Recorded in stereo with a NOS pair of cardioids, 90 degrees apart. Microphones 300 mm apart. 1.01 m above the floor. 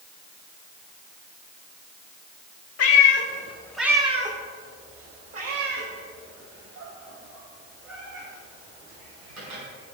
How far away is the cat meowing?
About 1.3 m.